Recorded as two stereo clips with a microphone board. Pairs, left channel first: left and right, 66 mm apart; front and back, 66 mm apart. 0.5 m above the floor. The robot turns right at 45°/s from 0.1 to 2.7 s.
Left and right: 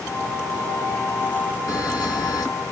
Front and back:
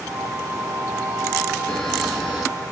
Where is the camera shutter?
70° left, 1.8 m; by 2.5 s 100° left, 1.8 m.